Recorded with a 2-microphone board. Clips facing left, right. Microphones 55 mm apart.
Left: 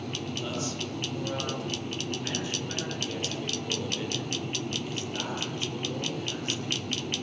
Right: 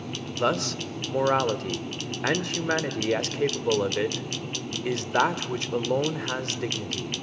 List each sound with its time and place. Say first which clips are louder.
0.3 s a man speaking: right 11 dB; 75° right (ahead or behind), 1.9 m